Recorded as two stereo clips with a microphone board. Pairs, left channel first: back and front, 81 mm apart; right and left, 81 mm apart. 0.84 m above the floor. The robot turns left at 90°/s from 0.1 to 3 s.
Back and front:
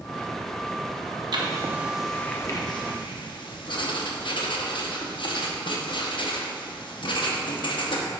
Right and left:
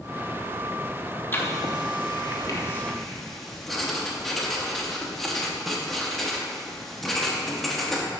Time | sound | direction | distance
1.3 | writing | 25° right | 0.9 m